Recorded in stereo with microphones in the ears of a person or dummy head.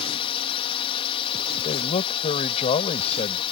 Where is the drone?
25° left (ahead or behind).